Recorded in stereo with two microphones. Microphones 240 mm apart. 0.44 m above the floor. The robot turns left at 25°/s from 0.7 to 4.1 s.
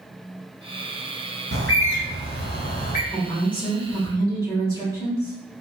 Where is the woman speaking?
Centre (ahead or behind), 1.2 m; by 5.3 s 15° right (ahead or behind), 1.2 m.